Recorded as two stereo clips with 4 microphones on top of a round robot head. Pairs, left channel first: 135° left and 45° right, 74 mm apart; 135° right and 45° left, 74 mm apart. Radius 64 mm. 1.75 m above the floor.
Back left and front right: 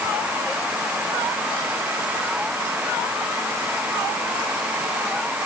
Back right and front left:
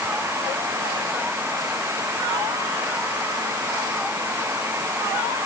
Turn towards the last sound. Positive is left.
No sound to turn to.